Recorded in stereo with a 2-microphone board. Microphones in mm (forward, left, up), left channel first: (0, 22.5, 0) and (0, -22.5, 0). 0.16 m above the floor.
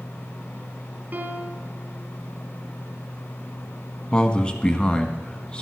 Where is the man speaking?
25° left (ahead or behind), 1.0 m.